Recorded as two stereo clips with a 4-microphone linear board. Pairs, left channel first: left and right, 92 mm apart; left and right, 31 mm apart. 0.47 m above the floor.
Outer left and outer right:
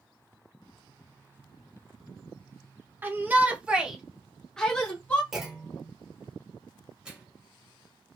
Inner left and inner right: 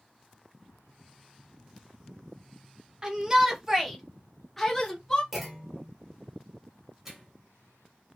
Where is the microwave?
10° right (ahead or behind), 1.5 m.